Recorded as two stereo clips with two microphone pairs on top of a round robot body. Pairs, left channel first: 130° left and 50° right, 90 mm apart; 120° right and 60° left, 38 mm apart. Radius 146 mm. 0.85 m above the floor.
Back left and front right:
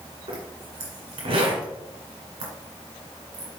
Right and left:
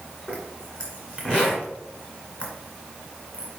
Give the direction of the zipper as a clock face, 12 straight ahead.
2 o'clock.